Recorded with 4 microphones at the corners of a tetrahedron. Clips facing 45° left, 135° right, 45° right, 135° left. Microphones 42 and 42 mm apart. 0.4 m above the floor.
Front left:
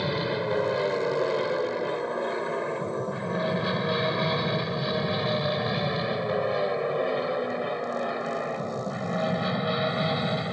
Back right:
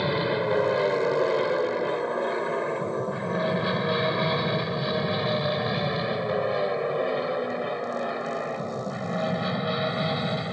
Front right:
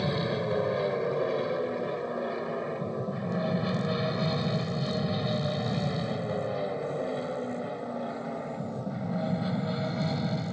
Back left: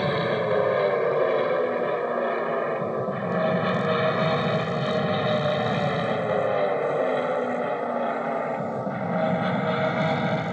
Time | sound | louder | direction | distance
0.0 | an aircraft | back right 3 dB, back left 6 dB | 155° left | ?